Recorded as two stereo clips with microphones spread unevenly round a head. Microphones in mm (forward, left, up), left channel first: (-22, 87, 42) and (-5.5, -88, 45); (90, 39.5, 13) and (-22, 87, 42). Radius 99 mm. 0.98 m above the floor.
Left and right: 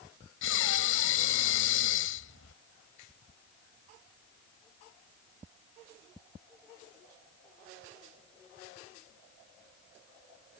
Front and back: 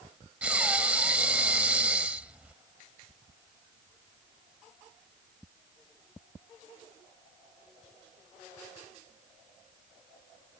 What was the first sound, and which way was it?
Breathing, 80° left.